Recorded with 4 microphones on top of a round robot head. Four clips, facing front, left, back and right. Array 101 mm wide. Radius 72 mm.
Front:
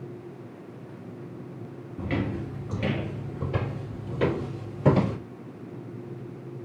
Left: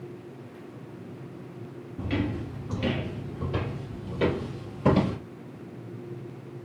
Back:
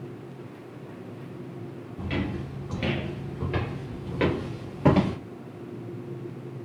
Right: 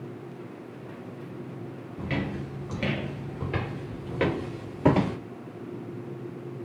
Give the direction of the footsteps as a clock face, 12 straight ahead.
1 o'clock.